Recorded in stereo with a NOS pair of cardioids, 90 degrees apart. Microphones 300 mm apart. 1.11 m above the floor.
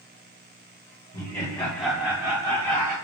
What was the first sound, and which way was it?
Laughter, 30° left.